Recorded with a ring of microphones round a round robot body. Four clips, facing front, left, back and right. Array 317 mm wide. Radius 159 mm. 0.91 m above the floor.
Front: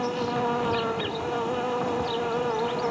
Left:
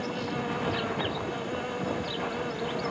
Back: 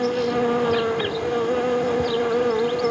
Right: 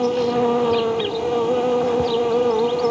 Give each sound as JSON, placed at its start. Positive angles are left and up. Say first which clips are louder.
{"t": 0.0, "sound": "an insect", "louder": "right 14 dB, back 5 dB", "azimuth_deg": -120}